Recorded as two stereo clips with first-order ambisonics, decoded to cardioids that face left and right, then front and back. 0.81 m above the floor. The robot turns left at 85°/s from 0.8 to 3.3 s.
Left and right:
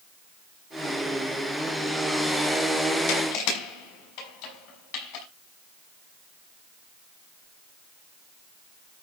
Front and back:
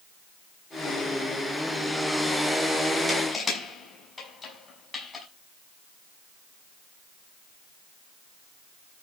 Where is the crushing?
90° left, 5.5 m; by 5.2 s 75° left, 5.5 m.